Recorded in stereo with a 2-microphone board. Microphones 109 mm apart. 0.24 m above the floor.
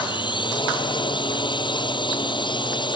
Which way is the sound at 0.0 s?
45° left (ahead or behind).